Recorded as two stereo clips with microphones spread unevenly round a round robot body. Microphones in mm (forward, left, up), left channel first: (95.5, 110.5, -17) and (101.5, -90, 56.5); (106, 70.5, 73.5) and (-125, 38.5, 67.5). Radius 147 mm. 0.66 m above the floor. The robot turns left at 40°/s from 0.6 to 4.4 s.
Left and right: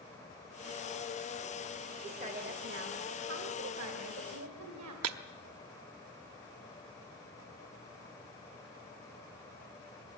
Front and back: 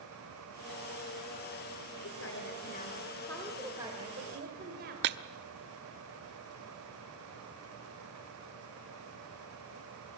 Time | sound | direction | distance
2.0 | a woman speaking | 25° right | 2.5 m
5.0 | breaking glass | 130° right | 0.8 m